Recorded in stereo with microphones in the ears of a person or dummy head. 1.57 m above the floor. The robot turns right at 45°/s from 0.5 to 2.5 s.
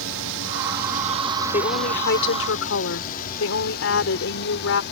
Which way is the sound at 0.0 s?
70° right (ahead or behind).